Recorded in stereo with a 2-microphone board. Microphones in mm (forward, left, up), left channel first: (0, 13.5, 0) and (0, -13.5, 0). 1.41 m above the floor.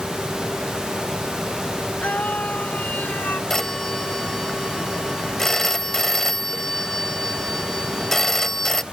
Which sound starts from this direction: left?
A scream, at 2.0 s.